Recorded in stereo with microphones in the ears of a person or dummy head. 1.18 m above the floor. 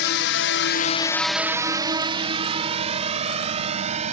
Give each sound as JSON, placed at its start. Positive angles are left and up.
{"t": 0.0, "sound": "a drone", "side_deg": 55}